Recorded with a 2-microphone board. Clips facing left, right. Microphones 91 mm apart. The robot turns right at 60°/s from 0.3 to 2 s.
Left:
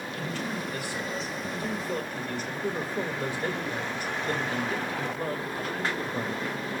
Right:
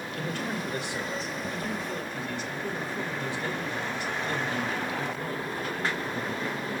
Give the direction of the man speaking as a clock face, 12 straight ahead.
2 o'clock.